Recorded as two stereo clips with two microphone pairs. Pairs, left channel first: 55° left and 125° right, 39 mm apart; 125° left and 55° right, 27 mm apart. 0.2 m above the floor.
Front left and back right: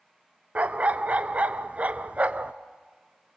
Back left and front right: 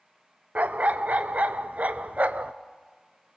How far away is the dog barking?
About 0.6 m.